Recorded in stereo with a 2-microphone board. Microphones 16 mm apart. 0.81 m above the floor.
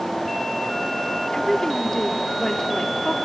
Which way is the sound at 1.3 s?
35° left (ahead or behind).